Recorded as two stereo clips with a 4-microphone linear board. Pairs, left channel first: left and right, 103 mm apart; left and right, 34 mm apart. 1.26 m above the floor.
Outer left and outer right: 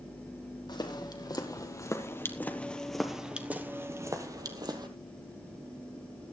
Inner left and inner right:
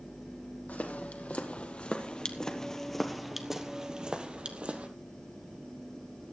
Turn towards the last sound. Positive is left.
turn(degrees=-45)  # may be behind; listen again after turning